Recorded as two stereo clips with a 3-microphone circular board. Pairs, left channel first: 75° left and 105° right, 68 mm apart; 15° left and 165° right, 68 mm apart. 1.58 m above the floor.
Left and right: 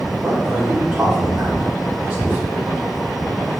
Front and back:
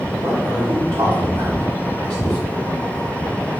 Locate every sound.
0.2 s a man speaking: 165° right, 1.4 m